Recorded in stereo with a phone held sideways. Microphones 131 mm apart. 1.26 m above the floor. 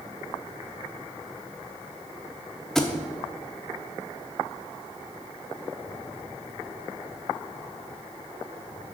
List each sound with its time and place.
2.8 s a thud: 5° left (ahead or behind), 0.9 m